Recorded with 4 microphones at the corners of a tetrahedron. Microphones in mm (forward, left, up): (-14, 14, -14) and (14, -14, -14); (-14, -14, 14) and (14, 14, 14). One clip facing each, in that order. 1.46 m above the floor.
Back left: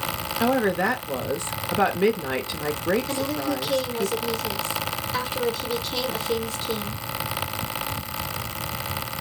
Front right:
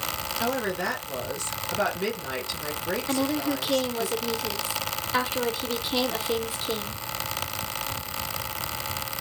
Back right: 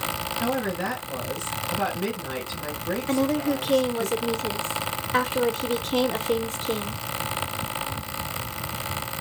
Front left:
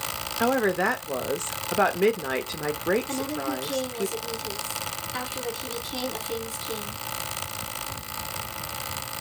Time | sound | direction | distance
0.4 | a woman speaking | 70° left | 0.6 m
3.1 | a woman speaking | 120° right | 0.7 m